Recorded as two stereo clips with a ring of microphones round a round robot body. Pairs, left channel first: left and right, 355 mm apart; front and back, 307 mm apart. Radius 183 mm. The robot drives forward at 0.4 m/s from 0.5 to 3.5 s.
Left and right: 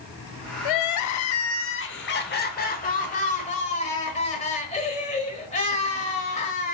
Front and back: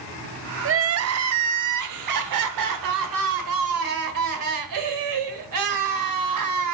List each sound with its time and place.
0.7 s crying: 125° left, 0.6 m; by 6.7 s 160° left, 1.6 m